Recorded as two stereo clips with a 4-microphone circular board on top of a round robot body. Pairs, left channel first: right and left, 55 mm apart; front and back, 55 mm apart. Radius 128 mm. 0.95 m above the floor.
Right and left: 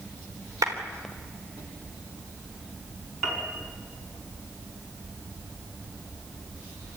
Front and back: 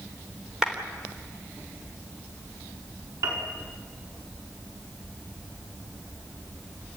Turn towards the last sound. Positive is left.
turn(degrees=170)